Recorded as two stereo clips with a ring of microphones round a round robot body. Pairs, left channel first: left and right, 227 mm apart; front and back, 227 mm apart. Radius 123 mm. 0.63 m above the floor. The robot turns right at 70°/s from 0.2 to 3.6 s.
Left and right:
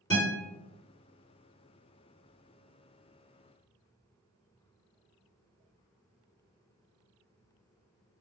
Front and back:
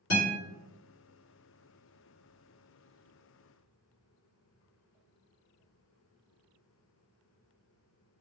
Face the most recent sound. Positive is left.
turn(degrees=-105)